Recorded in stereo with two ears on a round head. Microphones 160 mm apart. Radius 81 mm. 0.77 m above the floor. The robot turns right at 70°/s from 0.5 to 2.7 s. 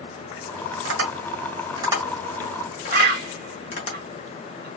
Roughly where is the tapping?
Right.